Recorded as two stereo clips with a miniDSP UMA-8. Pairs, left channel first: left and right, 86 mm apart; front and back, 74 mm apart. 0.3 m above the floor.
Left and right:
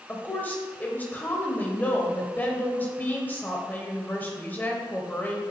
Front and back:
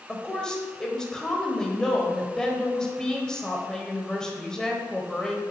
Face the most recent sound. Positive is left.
turn(degrees=65)